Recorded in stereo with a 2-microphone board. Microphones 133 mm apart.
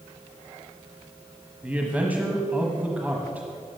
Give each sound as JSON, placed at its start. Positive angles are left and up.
{"t": 1.6, "sound": "a man speaking", "side_deg": -10, "distance_m": 1.2}